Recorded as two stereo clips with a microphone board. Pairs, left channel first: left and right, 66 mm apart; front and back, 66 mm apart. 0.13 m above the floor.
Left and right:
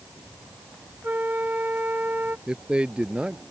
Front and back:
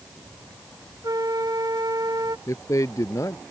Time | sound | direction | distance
1.0 | a flute | 155° right | ?
2.5 | a man speaking | 20° right | ?